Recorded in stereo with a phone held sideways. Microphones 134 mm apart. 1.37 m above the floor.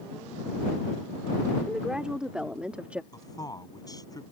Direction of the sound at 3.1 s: 30° left (ahead or behind).